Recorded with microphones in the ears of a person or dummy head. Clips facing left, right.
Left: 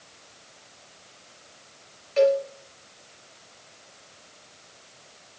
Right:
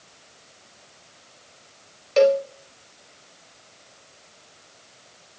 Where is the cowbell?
60° right (ahead or behind), 0.6 m.